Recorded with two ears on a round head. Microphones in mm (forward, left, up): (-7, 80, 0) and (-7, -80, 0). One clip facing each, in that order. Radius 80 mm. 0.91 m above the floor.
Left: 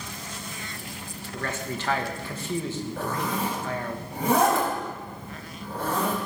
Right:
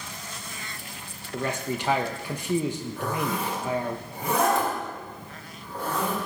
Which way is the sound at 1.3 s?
15° right (ahead or behind).